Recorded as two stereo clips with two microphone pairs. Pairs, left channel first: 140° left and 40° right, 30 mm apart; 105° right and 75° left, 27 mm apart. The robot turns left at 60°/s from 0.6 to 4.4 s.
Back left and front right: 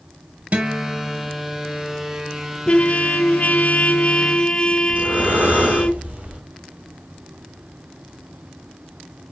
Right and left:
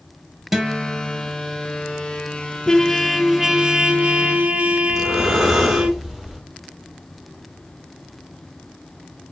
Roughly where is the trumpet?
Behind.